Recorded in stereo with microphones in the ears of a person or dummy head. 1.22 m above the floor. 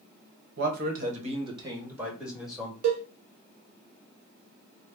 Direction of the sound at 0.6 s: 50° right (ahead or behind).